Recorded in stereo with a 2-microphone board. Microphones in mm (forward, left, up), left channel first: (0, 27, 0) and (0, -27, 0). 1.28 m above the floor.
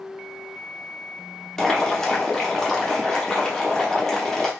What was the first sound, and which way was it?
Boiling, 10° left (ahead or behind).